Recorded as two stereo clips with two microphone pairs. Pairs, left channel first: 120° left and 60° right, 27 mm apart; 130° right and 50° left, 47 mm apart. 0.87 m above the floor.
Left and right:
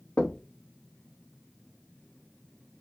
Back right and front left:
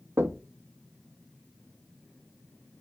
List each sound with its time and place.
0.2 s knocking: 85° left, 0.7 m